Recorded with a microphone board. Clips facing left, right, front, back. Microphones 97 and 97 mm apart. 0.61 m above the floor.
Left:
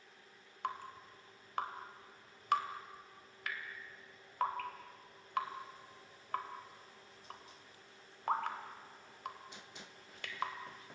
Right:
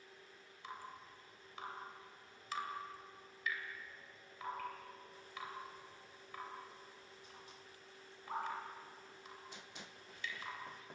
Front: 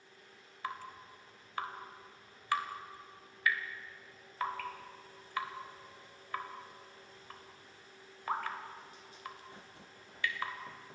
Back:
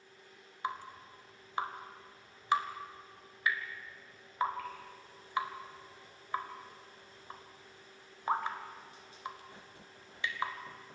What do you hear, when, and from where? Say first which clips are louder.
0.6 s dripping: left 8 dB, back 3 dB; 115° left, 2.5 m